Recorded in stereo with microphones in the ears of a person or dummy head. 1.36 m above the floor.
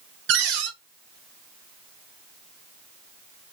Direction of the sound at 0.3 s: 60° right (ahead or behind).